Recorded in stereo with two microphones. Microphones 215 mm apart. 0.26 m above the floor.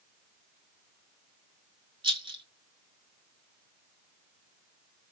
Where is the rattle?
25° right (ahead or behind), 0.6 m.